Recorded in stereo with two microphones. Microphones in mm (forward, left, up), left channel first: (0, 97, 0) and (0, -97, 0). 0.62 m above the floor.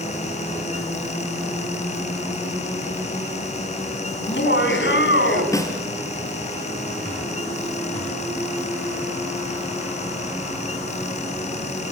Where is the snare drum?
15° left (ahead or behind), 3.5 m.